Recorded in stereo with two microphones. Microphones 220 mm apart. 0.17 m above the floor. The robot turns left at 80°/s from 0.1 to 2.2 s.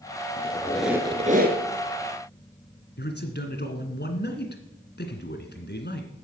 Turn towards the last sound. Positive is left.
turn(degrees=50)  # may be behind; listen again after turning